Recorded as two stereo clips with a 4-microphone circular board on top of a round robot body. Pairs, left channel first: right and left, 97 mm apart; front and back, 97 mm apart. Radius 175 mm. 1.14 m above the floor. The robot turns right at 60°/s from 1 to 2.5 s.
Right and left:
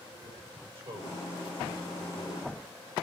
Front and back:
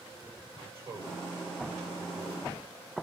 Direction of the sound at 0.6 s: 120° left.